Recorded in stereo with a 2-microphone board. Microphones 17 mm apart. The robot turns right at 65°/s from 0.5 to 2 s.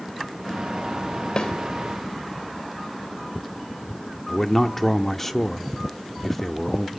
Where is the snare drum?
50° left (ahead or behind), 2.5 m; by 1.5 s 45° left (ahead or behind), 2.5 m.